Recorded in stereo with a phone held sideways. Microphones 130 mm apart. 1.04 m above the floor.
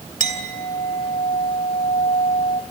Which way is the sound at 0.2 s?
85° left.